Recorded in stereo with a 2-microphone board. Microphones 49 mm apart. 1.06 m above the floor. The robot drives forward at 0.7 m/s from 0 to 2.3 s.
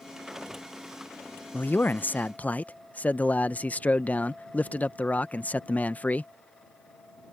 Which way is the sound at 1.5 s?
35° left (ahead or behind).